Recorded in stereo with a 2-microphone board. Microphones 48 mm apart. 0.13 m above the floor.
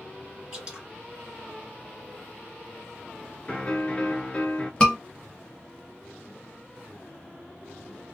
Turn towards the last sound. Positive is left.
turn(degrees=20)  # may be behind; listen again after turning